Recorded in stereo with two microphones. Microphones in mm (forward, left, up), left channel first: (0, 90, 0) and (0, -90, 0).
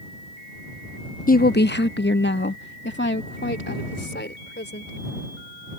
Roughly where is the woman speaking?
Left.